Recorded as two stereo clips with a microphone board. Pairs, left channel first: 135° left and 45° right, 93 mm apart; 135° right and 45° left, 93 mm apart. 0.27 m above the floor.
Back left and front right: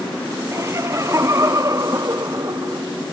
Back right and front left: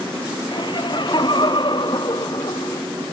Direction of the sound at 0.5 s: 105° right.